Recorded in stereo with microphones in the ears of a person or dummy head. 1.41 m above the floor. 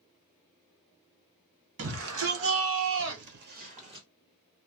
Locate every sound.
1.8 s a shout: 70° right (ahead or behind), 1.7 m; by 4.1 s 25° right (ahead or behind), 0.9 m